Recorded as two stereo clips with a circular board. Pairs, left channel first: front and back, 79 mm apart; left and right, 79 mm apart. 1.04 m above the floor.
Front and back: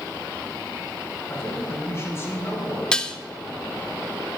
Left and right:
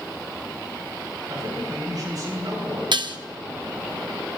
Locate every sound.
1.3 s a man speaking: 55° right, 5.5 m
2.9 s dishes clattering: 80° right, 0.7 m